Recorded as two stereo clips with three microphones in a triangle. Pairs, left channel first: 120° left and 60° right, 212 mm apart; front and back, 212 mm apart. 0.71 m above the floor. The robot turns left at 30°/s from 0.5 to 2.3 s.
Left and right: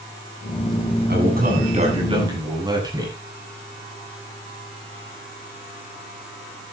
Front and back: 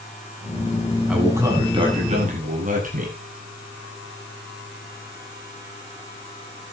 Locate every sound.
1.1 s a man speaking: 95° right, 7.5 m; by 3.1 s 130° right, 7.5 m